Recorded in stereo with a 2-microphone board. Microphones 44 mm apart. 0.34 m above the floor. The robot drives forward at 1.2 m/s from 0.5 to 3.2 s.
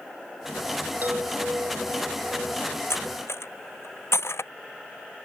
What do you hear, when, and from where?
1.0 s a chime: 45° right (ahead or behind); by 2.8 s 65° right (ahead or behind)
2.9 s cutlery clinking: 85° left